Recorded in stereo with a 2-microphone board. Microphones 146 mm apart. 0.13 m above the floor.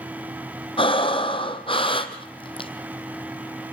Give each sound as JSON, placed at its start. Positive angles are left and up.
{"t": 0.8, "sound": "breathing", "side_deg": 35, "distance_m": 1.3}